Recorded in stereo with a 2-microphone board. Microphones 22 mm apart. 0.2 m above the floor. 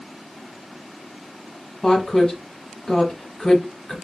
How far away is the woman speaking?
About 1.0 m.